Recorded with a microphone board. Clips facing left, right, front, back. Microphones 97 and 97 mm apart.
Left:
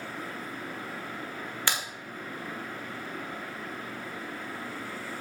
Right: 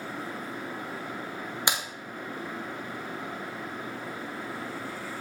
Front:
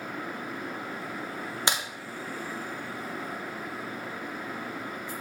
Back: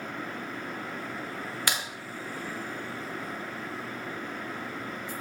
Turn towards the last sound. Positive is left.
turn(degrees=-35)